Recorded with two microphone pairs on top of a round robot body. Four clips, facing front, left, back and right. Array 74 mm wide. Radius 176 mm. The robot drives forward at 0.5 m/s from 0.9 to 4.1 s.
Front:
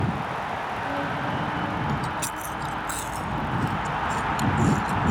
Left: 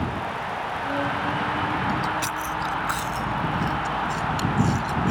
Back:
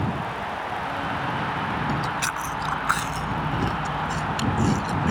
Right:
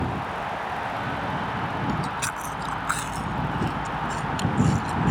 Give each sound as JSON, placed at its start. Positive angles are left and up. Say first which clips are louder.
{"t": 1.9, "sound": "chewing", "louder": "left 3 dB, back 2 dB", "azimuth_deg": -165}